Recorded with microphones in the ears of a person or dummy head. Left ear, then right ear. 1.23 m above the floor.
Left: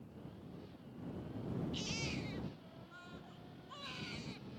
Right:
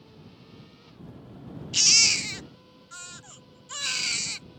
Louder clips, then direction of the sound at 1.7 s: Right 26 dB; 60° right (ahead or behind).